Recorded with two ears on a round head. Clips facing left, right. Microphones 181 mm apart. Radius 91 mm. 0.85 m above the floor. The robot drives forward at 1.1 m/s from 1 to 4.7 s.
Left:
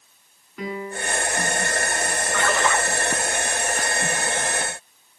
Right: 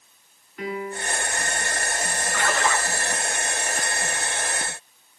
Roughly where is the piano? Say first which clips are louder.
Even; left.